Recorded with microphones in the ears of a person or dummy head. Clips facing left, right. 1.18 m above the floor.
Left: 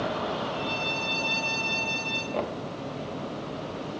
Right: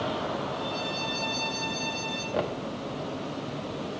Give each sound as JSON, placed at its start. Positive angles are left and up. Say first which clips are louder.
{"t": 0.5, "sound": "a violin", "louder": "left 1 dB", "side_deg": 85, "distance_m": 4.0}
{"t": 2.3, "sound": "knocking", "louder": "right 1 dB", "side_deg": -5, "distance_m": 0.6}